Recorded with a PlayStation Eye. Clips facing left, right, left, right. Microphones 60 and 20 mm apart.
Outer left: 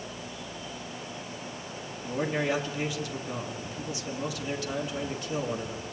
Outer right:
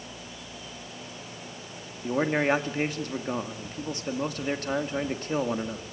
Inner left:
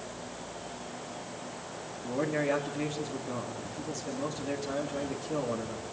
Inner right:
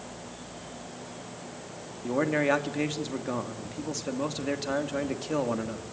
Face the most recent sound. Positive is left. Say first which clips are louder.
# outer right 4 dB, inner right 4 dB
turn(degrees=-45)  # may be behind; listen again after turning